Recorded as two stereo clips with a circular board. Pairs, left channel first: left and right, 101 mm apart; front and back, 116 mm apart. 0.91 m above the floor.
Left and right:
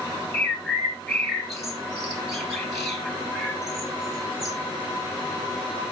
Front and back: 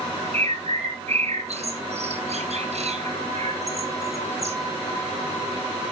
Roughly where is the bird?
Behind.